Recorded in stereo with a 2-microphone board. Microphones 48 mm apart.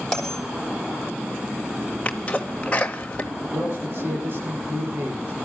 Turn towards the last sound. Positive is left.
turn(degrees=-50)  # may be behind; listen again after turning